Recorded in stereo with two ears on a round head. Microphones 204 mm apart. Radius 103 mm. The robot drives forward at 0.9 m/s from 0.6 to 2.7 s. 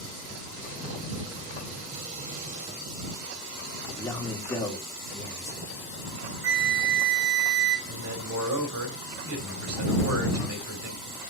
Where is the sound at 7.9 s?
75° right (ahead or behind), 3 m.